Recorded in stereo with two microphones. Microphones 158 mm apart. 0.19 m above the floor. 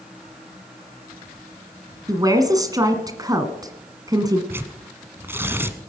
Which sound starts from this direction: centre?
Tearing paper, at 4.5 s.